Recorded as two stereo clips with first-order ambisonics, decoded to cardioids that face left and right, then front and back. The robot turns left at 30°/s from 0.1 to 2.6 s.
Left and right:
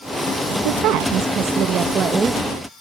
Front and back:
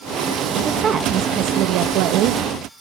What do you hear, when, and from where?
0.7 s a woman speaking: 110° right, 0.9 m; by 2.4 s 165° right, 0.9 m